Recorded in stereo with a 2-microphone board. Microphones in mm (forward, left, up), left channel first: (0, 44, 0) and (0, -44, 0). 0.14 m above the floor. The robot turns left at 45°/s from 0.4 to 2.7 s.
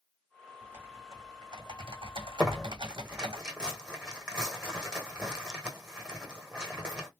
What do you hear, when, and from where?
0.6 s typing on a keyboard: 15° right, 1.5 m; by 3.4 s 110° right, 1.5 m
2.4 s tearing paper: 5° left (ahead or behind), 1.5 m; by 7.1 s 10° right (ahead or behind), 1.5 m